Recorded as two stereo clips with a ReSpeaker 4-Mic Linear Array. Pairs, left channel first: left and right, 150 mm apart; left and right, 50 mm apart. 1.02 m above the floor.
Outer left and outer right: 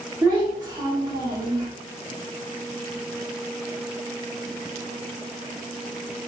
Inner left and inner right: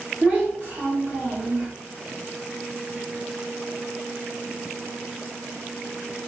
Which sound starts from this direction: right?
A child speaking, at 0.2 s.